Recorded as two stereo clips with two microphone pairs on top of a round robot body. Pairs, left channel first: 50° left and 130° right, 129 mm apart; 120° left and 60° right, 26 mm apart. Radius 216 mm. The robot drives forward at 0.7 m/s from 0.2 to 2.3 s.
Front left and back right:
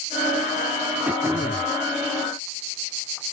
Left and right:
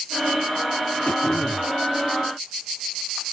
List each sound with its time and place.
1.1 s throat clearing: 150° left; by 1.7 s 160° left